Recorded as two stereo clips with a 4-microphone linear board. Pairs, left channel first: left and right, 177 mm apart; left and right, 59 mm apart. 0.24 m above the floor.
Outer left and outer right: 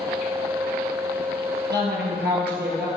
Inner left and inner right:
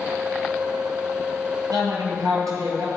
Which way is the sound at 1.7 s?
80° right.